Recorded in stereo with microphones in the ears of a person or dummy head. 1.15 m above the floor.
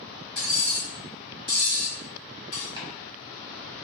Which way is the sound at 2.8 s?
20° right (ahead or behind).